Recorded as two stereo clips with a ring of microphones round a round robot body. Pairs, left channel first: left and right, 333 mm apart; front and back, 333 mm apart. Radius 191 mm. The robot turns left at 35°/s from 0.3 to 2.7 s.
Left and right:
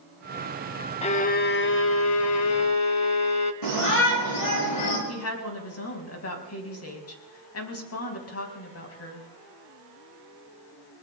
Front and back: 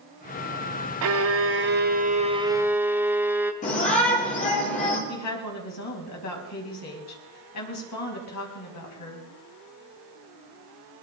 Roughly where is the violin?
Behind left.